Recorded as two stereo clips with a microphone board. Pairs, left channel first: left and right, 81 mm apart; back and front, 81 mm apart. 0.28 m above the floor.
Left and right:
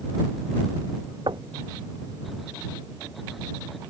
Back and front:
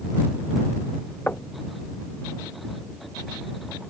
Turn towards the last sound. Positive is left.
turn(degrees=-110)